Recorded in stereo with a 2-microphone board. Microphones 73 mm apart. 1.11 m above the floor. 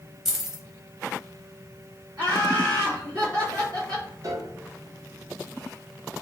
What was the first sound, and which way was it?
Keys jangling, 5° right (ahead or behind).